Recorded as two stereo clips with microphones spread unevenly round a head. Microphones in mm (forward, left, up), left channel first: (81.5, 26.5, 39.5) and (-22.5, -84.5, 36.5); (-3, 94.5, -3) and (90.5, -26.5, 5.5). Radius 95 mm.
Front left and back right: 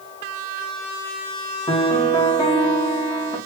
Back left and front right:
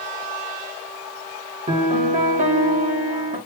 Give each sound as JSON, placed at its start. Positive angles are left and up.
{"t": 1.7, "sound": "a piano", "azimuth_deg": -15, "distance_m": 1.8}